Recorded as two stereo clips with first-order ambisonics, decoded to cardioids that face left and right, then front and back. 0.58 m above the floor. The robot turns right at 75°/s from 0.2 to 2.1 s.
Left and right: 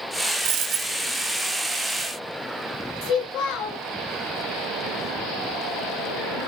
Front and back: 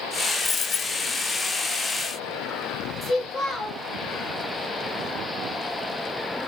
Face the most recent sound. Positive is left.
turn(degrees=70)